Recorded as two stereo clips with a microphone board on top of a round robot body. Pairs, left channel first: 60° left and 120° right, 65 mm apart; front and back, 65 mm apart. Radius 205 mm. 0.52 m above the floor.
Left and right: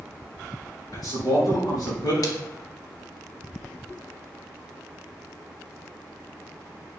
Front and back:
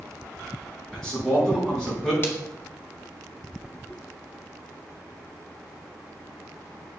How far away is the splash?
About 2.5 m.